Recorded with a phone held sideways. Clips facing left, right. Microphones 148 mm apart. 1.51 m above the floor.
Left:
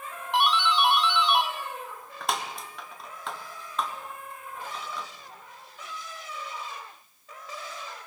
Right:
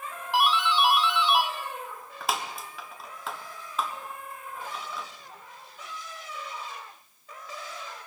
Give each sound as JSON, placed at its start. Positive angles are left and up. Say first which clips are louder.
{"t": 0.3, "sound": "a doorbell", "louder": "even", "side_deg": 0, "distance_m": 1.2}